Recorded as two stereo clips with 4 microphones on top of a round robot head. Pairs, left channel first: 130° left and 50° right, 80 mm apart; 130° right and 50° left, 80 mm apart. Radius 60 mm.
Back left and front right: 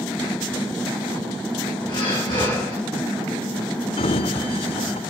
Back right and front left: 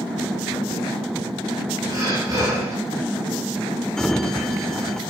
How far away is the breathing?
About 9 m.